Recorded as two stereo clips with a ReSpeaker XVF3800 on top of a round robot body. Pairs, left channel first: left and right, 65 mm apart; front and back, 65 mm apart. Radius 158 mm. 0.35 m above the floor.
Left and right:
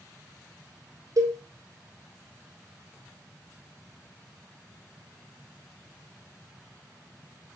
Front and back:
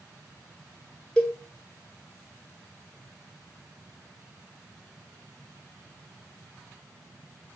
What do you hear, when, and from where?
1.2 s a cowbell: 75° right, 2 m